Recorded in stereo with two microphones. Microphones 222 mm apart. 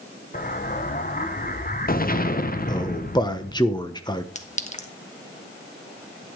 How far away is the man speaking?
About 1.2 m.